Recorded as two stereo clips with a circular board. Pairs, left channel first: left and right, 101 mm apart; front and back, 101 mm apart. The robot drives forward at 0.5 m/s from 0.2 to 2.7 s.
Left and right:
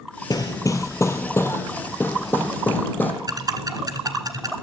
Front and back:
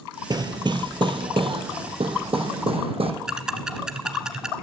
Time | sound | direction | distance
0.3 | hammering | 135° left | 0.9 m
3.3 | ticking | 100° right | 1.2 m